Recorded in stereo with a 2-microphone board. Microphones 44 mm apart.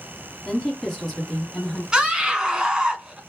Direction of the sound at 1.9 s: 20° right (ahead or behind).